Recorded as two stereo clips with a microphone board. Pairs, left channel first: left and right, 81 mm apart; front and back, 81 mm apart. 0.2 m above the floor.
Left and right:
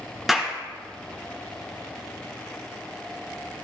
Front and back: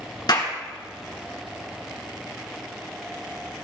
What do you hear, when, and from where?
0.3 s a clap: straight ahead, 2 m